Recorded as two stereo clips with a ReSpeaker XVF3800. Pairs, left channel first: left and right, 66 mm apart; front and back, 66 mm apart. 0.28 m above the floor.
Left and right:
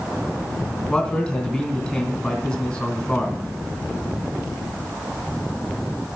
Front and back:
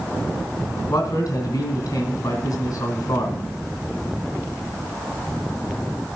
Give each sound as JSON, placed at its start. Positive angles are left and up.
{"t": 0.9, "sound": "a man speaking", "azimuth_deg": 10, "distance_m": 2.5}